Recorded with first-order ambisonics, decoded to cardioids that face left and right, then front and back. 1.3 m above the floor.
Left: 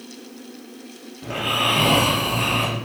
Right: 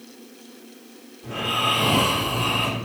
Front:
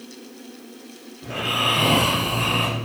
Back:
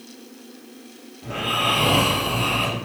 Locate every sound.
1.2 s snoring: 85° left, 1.7 m